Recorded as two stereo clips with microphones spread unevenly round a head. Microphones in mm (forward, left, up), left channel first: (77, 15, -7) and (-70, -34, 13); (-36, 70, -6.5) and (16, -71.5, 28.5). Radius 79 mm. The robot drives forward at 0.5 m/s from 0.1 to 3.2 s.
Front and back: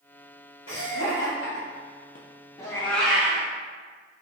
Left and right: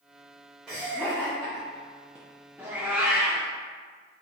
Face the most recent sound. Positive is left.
turn(degrees=-105)